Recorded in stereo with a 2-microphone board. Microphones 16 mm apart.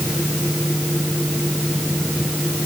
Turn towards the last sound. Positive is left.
No sound to turn to.